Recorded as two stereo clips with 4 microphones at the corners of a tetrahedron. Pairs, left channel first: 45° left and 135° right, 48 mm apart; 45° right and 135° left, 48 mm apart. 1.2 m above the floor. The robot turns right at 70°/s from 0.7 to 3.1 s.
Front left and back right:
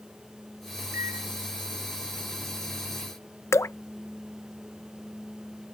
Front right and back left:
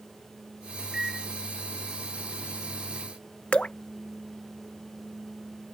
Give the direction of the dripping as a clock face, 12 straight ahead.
11 o'clock.